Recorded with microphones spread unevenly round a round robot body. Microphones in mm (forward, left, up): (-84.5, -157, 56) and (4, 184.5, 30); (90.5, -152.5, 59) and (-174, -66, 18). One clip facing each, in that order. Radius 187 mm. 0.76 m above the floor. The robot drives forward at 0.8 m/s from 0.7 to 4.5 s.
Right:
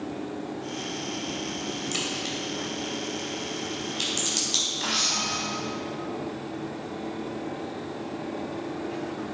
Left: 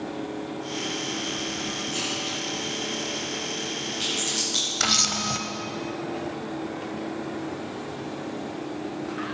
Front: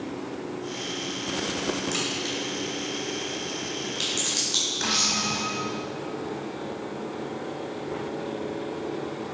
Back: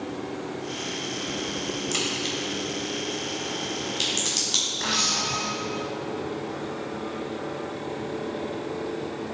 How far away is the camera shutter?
About 0.9 m.